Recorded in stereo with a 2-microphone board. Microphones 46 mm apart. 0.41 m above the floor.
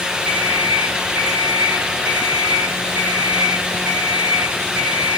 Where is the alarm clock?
45° right (ahead or behind), 9 m.